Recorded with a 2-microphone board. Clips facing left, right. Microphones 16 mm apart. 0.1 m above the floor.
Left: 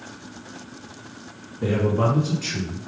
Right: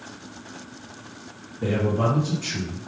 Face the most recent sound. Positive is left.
turn(degrees=30)  # may be behind; listen again after turning